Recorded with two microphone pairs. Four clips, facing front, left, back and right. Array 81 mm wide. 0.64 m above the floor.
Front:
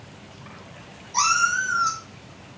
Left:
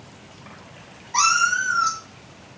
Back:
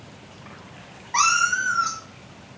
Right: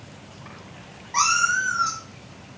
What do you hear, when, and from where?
1.1 s a cat meowing: 175° right, 2.5 m